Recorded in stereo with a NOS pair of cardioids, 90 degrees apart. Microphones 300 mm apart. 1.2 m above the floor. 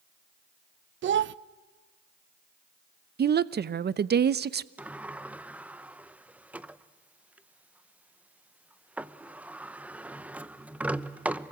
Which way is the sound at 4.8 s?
5° right.